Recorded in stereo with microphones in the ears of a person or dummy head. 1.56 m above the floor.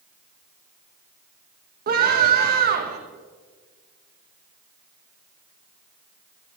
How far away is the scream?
About 2 m.